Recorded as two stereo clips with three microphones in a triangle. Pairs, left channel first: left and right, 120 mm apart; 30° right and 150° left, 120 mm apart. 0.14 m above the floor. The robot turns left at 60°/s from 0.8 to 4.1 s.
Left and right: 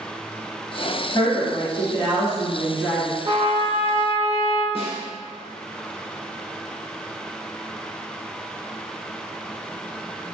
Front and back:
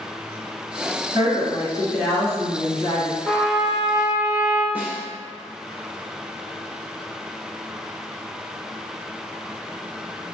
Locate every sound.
1.1 s a woman speaking: 110° left, 1.9 m; by 3.1 s 10° right, 1.9 m
3.2 s a trumpet: 100° right, 0.6 m; by 4.7 s 150° right, 0.6 m
4.8 s a snare drum: 75° left, 0.8 m